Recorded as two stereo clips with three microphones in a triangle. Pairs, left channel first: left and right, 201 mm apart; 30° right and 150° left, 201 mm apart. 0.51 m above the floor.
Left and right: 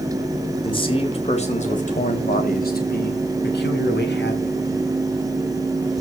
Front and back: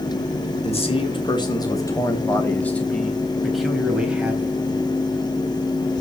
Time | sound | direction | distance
0.6 | a man speaking | 25° left | 3 m